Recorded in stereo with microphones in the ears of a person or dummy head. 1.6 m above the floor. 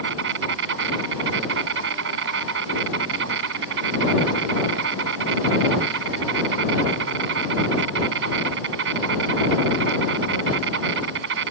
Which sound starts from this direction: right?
An insect, at 0.0 s.